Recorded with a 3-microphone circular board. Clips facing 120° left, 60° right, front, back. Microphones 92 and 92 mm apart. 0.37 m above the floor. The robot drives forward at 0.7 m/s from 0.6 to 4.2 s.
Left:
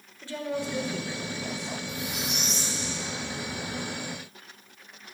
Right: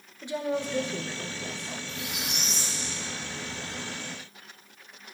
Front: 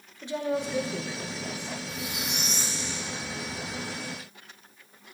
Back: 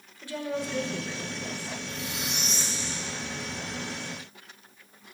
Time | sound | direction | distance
0.2 | a woman speaking | 25° right | 1.3 m
1.9 | a squeak | 70° left | 6 m